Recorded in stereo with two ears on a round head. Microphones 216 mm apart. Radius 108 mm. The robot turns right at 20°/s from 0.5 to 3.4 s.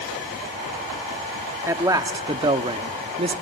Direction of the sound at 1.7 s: 155° right.